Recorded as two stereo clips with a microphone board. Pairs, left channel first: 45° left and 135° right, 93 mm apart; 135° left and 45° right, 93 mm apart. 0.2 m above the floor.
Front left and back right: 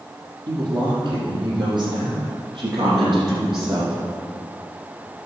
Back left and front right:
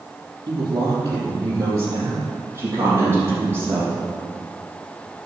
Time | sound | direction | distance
0.5 | a woman speaking | 95° right | 4.5 m